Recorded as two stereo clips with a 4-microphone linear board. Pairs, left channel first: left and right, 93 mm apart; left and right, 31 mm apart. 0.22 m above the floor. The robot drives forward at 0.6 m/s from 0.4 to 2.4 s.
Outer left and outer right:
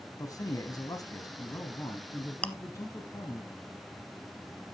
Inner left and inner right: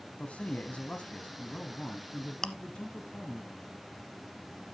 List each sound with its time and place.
0.2 s a man speaking: 40° left (ahead or behind), 1.3 m; by 3.4 s 30° left (ahead or behind), 1.6 m
2.4 s chewing: 15° left (ahead or behind), 0.9 m